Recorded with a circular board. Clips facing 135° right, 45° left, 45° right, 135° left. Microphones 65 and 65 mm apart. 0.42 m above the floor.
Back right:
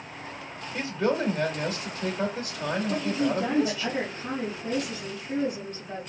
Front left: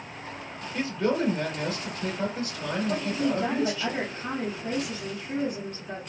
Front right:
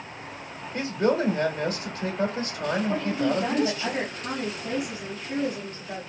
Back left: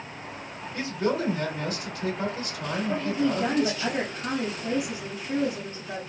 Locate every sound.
0.7 s a man speaking: 55° right, 1.2 m
2.9 s a woman speaking: 75° left, 1.6 m